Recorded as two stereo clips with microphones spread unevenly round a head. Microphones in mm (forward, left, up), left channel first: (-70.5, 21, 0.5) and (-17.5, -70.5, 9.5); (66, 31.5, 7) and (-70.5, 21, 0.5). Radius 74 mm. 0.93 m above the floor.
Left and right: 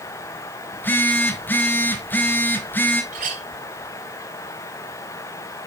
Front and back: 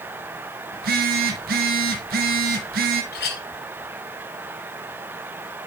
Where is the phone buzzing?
170° right, 2.5 m.